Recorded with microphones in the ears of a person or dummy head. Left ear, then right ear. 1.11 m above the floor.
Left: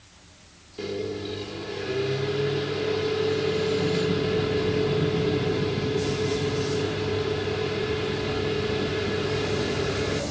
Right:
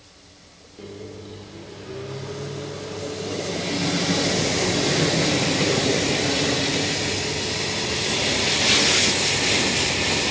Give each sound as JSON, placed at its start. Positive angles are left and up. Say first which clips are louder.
{"t": 0.8, "sound": "a microwave", "louder": "left 7 dB", "side_deg": 30, "distance_m": 2.5}